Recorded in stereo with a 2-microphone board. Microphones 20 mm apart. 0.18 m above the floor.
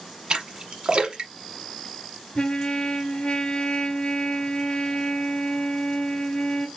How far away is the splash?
About 0.9 m.